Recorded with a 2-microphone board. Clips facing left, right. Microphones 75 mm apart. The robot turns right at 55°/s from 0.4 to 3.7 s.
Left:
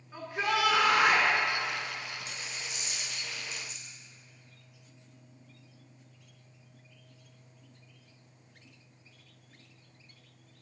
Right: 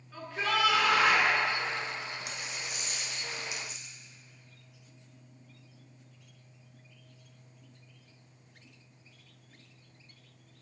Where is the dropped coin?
80° right, 1.3 m; by 4.0 s straight ahead, 1.3 m.